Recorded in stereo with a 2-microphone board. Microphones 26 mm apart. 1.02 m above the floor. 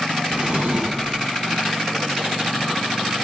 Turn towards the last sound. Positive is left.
turn(degrees=-55)  # may be behind; listen again after turning